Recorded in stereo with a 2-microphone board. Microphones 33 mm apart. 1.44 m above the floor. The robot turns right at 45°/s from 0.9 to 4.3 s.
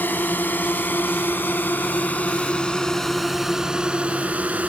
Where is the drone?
70° left (ahead or behind); by 4.7 s 45° right (ahead or behind).